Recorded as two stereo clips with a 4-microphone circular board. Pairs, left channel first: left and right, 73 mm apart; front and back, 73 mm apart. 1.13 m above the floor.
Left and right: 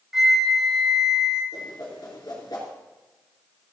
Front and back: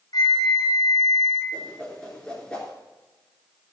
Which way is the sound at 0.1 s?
5° right.